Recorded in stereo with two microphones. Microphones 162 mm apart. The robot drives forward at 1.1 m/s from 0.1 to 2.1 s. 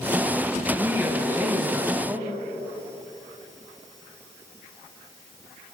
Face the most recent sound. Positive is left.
turn(degrees=-20)  # may be behind; listen again after turning